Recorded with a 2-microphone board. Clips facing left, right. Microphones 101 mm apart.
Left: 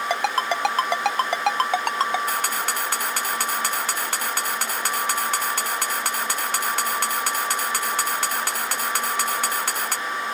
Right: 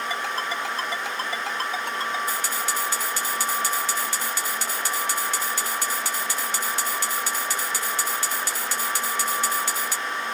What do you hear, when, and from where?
0.1 s a ringtone: 70° left (ahead or behind)
2.3 s a camera shutter: 60° left (ahead or behind)